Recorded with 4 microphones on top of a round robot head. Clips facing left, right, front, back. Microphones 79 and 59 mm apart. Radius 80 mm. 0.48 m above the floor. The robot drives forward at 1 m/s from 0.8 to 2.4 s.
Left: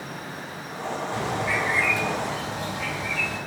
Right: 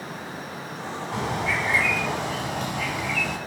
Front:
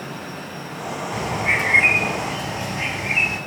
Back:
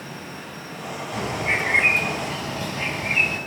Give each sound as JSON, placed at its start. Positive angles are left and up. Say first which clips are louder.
{"t": 1.1, "sound": "a bird", "louder": "right 1 dB, front 2 dB", "azimuth_deg": -55, "distance_m": 5.5}